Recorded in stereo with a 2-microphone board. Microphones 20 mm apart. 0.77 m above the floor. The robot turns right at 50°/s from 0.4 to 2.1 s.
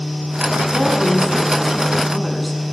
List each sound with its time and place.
0.7 s a woman speaking: 60° right, 7.5 m; by 2.6 s 10° left, 7.5 m